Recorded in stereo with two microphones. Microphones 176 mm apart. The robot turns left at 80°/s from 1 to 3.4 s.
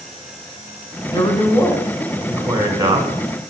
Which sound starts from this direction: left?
A man speaking, at 1.1 s.